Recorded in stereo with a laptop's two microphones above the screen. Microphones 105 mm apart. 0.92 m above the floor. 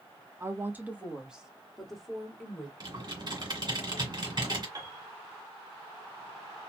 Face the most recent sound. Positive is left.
turn(degrees=-35)  # may be behind; listen again after turning